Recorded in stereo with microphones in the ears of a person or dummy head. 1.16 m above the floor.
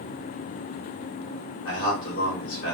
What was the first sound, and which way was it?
A man speaking, 70° left (ahead or behind).